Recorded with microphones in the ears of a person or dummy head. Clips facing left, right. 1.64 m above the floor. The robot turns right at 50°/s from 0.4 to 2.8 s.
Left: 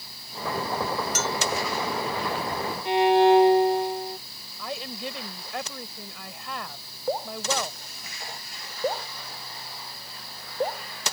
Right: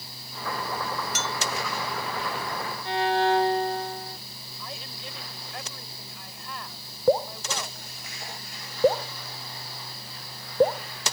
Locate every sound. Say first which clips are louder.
1.1 s a bell: left 4 dB; 40° left (ahead or behind); by 1.4 s 25° left (ahead or behind)
2.9 s a violin: left 6 dB; 15° left (ahead or behind)
4.6 s a woman speaking: left 8 dB; 65° left (ahead or behind)
7.1 s dripping: right 5 dB; 70° right (ahead or behind)